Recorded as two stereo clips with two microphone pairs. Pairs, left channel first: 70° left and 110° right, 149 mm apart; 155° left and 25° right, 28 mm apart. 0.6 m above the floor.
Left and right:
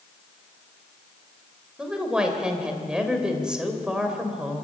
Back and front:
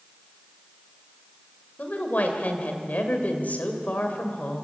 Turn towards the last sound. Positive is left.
turn(degrees=170)